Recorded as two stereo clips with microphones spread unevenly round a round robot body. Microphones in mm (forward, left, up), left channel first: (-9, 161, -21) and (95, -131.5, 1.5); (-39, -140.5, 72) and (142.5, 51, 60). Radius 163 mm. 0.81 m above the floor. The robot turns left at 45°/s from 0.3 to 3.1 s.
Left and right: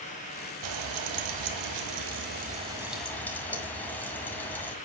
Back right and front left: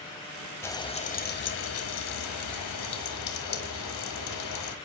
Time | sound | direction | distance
0.6 | frying | 55° right | 1.8 m